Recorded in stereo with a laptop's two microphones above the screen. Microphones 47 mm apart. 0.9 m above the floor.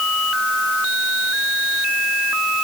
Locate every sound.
Only background noise.